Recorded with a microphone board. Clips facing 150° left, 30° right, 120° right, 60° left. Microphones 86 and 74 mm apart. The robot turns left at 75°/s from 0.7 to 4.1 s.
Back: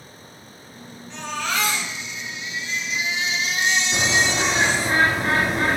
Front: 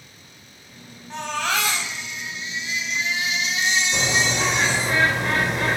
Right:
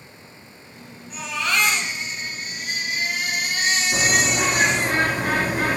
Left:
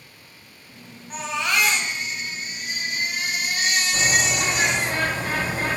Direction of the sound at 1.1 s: 15° left.